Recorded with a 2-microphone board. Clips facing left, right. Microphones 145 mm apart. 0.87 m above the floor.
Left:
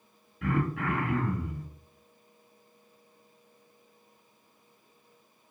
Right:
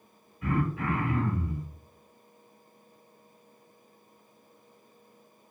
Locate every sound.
0.4 s throat clearing: 85° left, 1.1 m